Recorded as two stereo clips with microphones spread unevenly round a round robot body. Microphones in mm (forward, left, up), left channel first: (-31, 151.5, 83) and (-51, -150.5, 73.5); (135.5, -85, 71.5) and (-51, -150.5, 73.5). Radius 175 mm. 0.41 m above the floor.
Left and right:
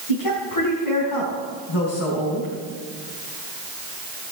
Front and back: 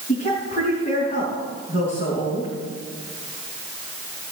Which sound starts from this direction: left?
A woman speaking, at 0.1 s.